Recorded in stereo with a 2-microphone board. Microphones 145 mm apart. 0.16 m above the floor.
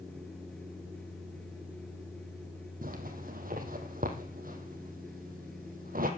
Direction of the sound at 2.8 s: 80° right.